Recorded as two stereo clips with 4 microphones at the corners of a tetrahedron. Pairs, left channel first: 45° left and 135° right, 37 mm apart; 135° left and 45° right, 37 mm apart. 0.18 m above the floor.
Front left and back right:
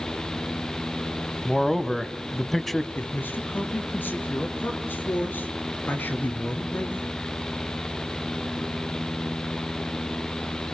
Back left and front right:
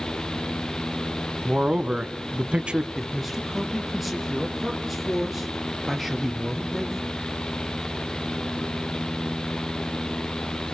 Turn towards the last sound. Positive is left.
turn(degrees=40)